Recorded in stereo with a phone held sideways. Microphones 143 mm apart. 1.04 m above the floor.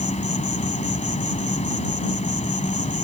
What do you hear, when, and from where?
0.0 s an insect: 60° left (ahead or behind)